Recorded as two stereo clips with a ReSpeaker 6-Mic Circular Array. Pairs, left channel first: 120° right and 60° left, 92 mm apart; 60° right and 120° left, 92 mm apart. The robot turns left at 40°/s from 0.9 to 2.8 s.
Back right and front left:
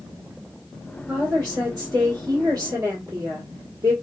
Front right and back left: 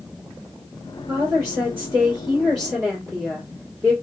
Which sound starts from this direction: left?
A woman speaking, at 1.1 s.